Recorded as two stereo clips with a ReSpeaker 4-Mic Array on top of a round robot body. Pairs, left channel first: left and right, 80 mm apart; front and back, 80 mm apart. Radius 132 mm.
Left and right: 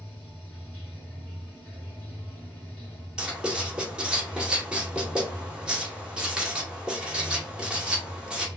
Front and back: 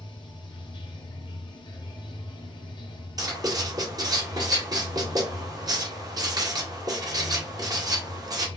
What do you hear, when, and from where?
0.0 s running water: 20° left, 1.9 m
3.2 s writing: 165° right, 2 m